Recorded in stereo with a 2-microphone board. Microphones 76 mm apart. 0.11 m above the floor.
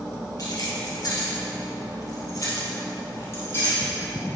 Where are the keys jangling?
50° left (ahead or behind), 1.7 m; by 3.8 s 35° left (ahead or behind), 3 m.